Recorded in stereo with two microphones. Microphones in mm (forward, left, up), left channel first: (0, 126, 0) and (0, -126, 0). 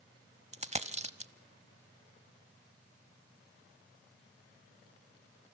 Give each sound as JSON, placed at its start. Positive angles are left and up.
{"t": 0.5, "sound": "a dropped coin", "side_deg": -30, "distance_m": 0.8}